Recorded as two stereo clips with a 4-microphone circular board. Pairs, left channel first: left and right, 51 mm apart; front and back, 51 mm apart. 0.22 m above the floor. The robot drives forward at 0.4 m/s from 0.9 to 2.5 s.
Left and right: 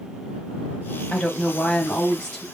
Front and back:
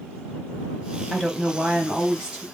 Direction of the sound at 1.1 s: 70° left.